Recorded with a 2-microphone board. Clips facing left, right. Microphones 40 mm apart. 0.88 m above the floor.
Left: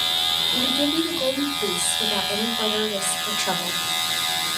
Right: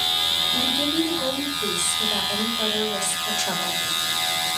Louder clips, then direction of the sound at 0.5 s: Left 1 dB; 20° left (ahead or behind).